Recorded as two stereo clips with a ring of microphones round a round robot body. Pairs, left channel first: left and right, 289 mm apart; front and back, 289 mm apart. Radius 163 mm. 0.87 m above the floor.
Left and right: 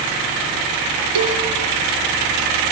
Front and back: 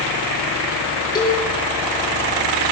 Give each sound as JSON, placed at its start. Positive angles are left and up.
{"t": 1.1, "sound": "a cowbell", "azimuth_deg": -80, "distance_m": 2.5}